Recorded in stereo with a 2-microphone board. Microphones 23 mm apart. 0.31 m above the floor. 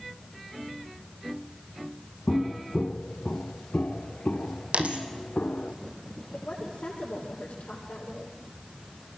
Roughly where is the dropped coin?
Right.